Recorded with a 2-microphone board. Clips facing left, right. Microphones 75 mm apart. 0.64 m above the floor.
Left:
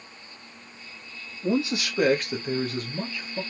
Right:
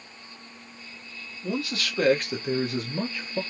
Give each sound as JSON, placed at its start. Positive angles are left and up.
{"t": 1.4, "sound": "a man speaking", "side_deg": 30, "distance_m": 0.9}